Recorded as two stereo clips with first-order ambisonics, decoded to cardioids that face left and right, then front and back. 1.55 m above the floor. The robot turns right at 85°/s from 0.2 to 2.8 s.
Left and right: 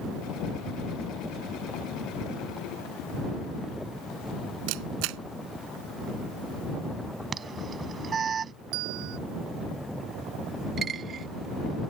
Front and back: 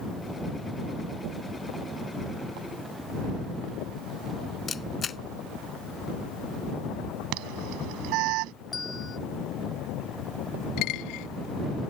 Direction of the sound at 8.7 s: 75° right.